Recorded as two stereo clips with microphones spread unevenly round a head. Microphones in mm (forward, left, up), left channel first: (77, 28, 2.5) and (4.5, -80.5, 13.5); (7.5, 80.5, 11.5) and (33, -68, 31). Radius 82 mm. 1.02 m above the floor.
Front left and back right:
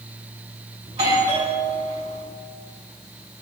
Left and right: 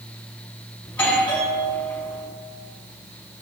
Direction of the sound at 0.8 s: Straight behind.